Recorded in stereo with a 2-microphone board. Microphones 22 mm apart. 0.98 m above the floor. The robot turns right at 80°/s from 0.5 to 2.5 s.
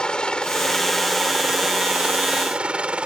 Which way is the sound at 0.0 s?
130° left.